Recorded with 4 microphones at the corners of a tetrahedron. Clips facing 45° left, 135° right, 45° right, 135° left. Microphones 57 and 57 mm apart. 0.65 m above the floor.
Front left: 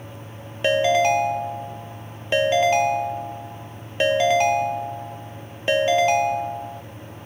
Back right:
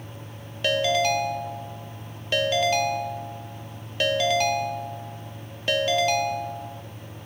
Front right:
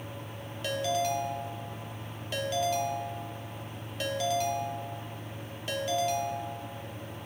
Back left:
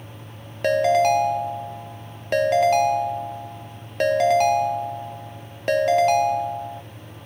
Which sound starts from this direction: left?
A ringtone, at 0.6 s.